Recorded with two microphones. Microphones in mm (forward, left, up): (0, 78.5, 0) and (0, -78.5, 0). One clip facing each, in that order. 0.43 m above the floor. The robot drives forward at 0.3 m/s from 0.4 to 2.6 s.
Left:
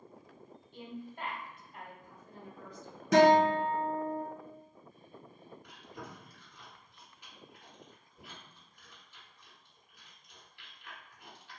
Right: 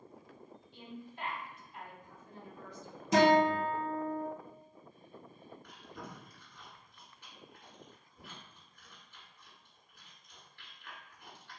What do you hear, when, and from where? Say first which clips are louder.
0.7 s a woman speaking: left 4 dB; 50° left (ahead or behind), 1.7 m
3.1 s a guitar: left 3 dB; 80° left, 1.1 m
5.6 s chewing: left 1 dB; 15° left (ahead or behind), 1.4 m